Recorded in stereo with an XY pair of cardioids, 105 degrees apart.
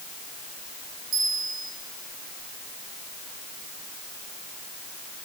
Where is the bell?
70° right, 6.5 m.